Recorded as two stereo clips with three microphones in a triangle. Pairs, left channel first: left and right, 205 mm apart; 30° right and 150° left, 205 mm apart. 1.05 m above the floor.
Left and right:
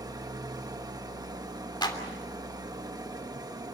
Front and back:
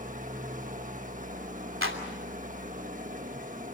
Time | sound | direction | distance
0.0 | an engine running | 160° right | 1.3 m
1.8 | a clap | 160° left | 3 m